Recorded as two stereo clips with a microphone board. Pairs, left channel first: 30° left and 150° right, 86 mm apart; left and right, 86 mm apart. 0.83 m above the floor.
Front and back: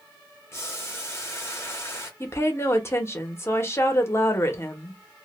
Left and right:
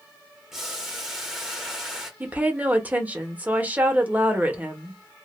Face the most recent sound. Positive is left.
turn(degrees=-20)